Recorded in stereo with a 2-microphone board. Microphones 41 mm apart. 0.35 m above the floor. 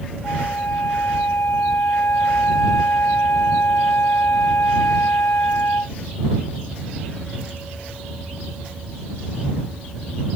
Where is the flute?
85° left.